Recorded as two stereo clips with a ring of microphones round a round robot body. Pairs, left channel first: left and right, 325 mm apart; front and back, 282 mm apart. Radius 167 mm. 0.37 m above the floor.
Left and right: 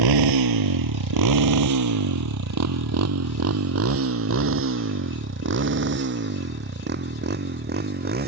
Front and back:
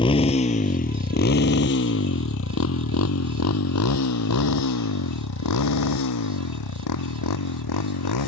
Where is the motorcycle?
75° right; by 8.3 s 30° right.